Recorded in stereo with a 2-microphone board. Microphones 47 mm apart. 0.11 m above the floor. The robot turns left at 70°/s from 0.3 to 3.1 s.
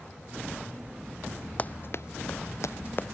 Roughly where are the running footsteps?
Left.